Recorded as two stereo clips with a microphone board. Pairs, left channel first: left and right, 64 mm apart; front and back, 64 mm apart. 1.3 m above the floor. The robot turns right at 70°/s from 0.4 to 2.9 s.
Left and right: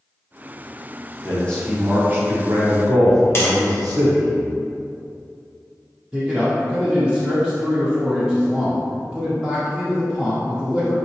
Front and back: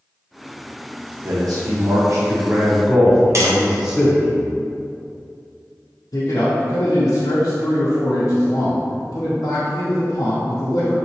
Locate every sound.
1.2 s a man speaking: 150° left, 1.0 m; by 4.3 s 95° right, 1.0 m
3.4 s tapping: 140° left, 0.7 m
6.1 s a man speaking: 5° right, 0.6 m